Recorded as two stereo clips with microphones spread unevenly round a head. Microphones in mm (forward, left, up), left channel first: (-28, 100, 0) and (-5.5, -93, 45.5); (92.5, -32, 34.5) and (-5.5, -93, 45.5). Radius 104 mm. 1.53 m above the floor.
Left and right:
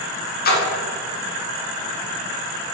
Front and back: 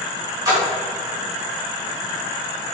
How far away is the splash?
About 3 m.